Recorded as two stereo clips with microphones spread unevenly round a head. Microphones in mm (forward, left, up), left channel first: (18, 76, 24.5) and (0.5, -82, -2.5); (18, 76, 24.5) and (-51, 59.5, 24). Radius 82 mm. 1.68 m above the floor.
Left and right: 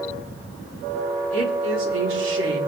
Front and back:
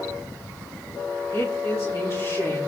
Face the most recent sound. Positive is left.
turn(degrees=-90)